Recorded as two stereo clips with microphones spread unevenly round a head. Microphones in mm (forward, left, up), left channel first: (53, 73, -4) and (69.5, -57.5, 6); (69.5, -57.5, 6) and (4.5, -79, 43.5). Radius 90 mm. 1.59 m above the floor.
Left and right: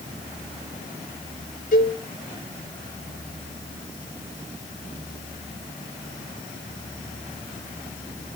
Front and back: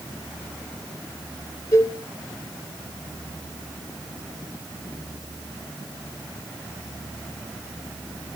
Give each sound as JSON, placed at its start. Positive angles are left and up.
{"t": 1.7, "sound": "a cowbell", "azimuth_deg": 90, "distance_m": 6.0}